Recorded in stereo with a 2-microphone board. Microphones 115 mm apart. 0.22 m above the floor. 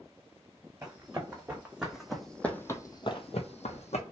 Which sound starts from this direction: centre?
Running footsteps, at 0.8 s.